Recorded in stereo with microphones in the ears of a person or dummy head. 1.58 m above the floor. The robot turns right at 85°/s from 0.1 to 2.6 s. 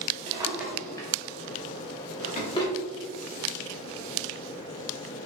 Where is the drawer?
40° right (ahead or behind), 1.4 m; by 2.7 s 25° left (ahead or behind), 1.4 m.